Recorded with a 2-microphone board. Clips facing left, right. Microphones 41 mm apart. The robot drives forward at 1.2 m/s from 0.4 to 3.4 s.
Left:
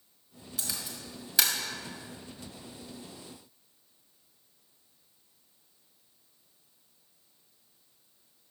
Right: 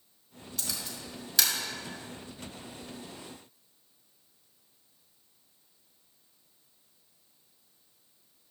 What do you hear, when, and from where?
0.6 s a camera shutter: 5° left (ahead or behind), 3 m; by 1.5 s 10° left (ahead or behind), 1.8 m